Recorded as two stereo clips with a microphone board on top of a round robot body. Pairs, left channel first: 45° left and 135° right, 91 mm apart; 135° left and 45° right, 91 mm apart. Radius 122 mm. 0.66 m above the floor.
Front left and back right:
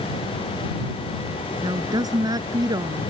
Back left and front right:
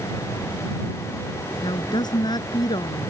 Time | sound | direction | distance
1.6 | a woman speaking | 175° left | ?